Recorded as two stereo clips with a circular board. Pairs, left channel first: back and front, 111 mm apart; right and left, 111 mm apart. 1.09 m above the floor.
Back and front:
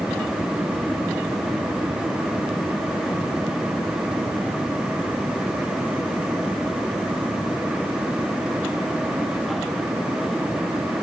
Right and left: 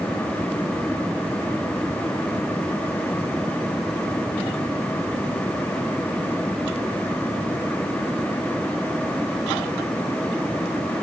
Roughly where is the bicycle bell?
I don't hear a bicycle bell.